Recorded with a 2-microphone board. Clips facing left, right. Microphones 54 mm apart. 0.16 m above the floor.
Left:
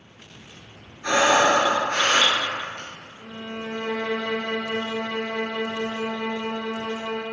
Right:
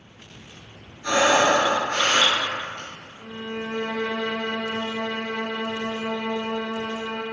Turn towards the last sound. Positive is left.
turn(degrees=-40)  # may be behind; listen again after turning